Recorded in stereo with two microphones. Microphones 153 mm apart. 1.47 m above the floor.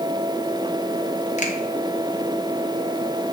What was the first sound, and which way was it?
A finger snap, 50° left (ahead or behind).